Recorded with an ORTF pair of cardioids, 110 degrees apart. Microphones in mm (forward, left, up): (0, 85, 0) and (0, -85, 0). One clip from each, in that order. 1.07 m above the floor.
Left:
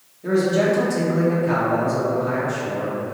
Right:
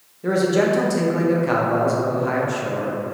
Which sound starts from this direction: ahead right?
A man speaking, at 0.2 s.